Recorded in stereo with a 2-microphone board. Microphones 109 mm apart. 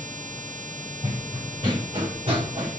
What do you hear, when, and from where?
1.0 s running footsteps: 55° right (ahead or behind), 4 m; by 2.8 s 65° right (ahead or behind), 4 m